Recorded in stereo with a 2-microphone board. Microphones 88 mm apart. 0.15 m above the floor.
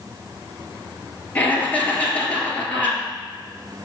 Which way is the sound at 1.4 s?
20° left (ahead or behind).